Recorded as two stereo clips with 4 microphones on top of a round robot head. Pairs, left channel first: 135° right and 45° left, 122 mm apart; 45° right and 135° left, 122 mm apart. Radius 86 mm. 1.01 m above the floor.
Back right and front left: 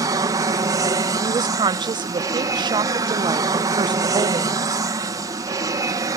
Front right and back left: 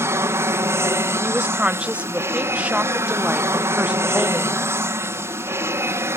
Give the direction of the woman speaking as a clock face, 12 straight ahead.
10 o'clock.